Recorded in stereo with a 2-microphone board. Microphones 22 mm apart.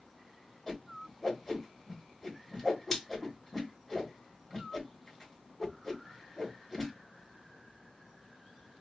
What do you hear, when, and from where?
0.7 s a whoosh: 5° left (ahead or behind), 2 m